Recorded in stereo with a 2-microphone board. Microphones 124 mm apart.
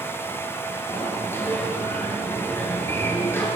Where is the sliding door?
20° left (ahead or behind), 7 m.